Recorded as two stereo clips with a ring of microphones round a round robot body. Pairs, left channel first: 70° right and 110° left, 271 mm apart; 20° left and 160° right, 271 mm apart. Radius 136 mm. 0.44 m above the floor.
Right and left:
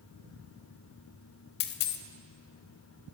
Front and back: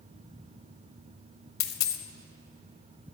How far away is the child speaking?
I don't hear a child speaking.